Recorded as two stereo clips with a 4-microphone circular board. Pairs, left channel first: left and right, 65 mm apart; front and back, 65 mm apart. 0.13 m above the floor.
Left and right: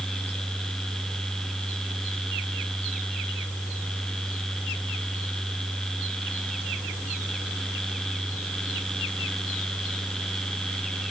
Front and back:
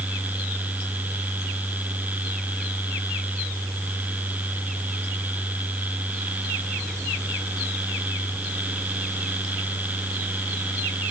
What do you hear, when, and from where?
Only background noise.